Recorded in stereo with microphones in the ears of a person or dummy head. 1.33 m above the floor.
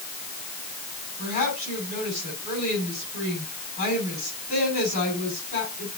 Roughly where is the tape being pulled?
I don't hear tape being pulled.